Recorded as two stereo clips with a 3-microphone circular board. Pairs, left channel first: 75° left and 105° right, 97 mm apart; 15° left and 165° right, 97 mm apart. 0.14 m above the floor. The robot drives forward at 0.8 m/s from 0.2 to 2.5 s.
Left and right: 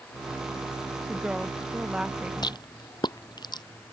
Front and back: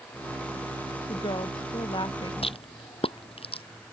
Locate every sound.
1.1 s a woman speaking: 25° right
2.4 s a rattle: 30° left